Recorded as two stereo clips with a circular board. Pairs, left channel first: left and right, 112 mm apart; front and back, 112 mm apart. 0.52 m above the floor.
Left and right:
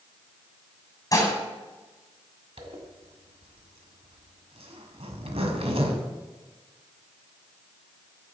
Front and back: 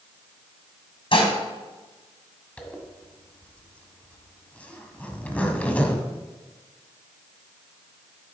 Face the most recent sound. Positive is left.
turn(degrees=-75)